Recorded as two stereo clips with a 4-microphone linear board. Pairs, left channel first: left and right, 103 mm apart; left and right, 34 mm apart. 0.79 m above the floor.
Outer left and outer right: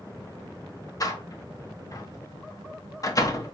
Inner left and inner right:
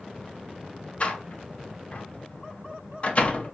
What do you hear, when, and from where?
1.0 s a door slam: 35° left (ahead or behind), 0.7 m